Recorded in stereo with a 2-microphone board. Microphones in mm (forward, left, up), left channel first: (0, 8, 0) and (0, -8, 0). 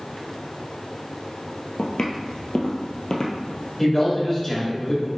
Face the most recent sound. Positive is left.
turn(degrees=20)  # may be behind; listen again after turning